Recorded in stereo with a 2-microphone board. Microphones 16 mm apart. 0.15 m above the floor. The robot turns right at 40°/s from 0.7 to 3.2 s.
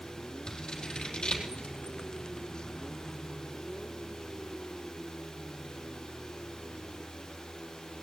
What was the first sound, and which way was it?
Scissors, 40° left (ahead or behind).